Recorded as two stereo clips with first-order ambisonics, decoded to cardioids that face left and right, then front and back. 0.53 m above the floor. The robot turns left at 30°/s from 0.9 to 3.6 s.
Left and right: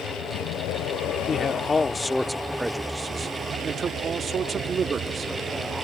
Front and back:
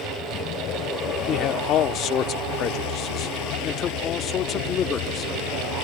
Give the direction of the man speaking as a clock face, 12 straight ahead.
11 o'clock.